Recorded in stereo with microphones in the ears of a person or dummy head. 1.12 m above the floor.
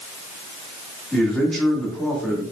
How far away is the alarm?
No alarm in this recording.